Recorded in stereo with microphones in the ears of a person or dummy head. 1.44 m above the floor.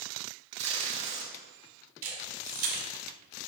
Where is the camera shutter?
50° right (ahead or behind), 2.0 m.